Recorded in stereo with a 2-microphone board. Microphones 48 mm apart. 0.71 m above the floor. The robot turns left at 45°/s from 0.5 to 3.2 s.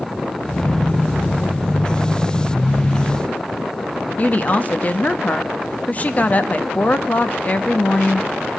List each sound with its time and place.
4.2 s a woman speaking: 30° left (ahead or behind), 0.9 m